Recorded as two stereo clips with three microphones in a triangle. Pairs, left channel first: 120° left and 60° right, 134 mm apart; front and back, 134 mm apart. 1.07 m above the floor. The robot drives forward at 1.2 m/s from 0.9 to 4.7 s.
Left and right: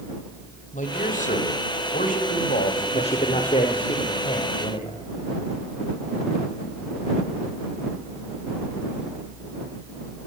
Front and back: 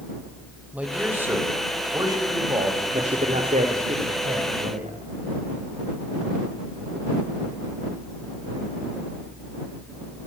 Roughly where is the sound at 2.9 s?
Behind left.